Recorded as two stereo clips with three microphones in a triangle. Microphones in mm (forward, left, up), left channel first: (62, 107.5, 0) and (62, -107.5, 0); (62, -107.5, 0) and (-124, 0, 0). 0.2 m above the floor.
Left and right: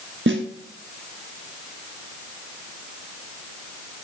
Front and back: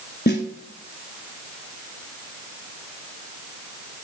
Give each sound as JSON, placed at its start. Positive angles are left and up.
{"t": 0.3, "sound": "a snare drum", "azimuth_deg": -70, "distance_m": 1.1}